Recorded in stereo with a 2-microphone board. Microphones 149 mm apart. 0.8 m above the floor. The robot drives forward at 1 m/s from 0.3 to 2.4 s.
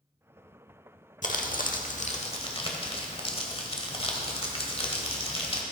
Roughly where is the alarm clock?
No alarm clock in this recording.